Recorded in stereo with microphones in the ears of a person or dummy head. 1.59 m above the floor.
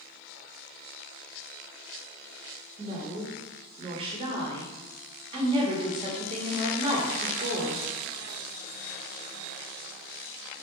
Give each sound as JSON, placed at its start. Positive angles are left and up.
{"t": 2.8, "sound": "a woman speaking", "side_deg": -30, "distance_m": 0.8}